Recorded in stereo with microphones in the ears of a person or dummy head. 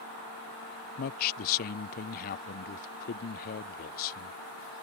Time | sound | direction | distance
1.0 | a man speaking | 50° left (ahead or behind) | ?